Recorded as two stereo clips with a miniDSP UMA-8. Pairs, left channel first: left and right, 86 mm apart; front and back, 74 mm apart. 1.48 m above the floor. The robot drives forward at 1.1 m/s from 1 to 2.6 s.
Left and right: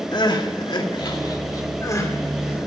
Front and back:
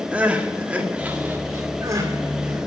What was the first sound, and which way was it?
Crying, 110° left.